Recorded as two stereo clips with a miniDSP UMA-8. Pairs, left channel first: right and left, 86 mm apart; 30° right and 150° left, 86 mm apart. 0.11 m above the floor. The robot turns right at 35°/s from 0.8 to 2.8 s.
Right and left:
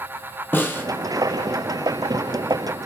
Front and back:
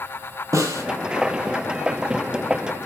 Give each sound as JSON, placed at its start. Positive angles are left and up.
{"t": 0.5, "sound": "a snare drum", "azimuth_deg": -155, "distance_m": 0.7}